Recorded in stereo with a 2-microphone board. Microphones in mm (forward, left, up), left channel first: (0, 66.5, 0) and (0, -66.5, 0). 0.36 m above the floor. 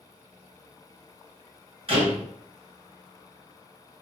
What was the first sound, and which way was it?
A door slam, 45° right (ahead or behind).